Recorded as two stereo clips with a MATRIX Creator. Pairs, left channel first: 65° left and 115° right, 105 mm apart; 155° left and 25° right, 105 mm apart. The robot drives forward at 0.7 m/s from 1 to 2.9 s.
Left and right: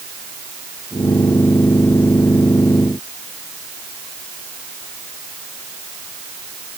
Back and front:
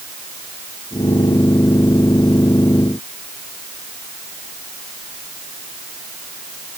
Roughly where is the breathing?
I don't hear breathing.